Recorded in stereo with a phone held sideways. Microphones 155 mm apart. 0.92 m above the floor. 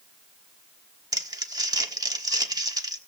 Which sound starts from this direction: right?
Crumpling, at 1.1 s.